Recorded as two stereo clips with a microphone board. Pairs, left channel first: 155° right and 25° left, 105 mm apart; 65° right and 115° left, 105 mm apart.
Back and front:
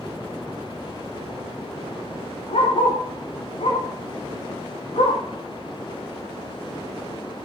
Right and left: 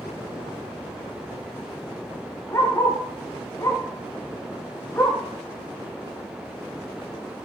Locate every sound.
2.5 s a dog barking: 130° right, 9.5 m; by 5.2 s 135° right, 11 m